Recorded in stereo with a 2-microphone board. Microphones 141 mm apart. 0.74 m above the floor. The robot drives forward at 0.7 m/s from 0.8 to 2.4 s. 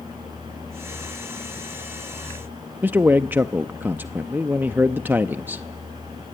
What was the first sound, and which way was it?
A man speaking, 15° right (ahead or behind).